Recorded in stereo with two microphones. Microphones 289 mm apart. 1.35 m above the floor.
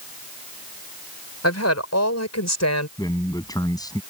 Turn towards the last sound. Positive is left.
turn(degrees=15)  # may be behind; listen again after turning